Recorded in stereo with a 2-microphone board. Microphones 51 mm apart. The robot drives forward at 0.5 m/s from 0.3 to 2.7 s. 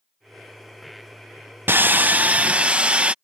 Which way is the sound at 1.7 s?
45° right (ahead or behind).